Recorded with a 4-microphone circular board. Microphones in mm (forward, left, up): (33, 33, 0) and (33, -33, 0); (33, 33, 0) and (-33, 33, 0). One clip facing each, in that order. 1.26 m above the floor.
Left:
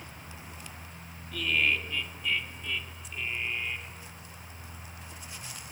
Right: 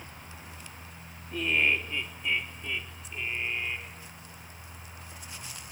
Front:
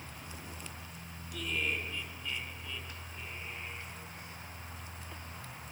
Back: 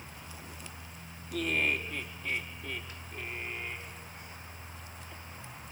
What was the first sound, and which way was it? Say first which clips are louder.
Laughter: right 1 dB, back 5 dB; 150° right.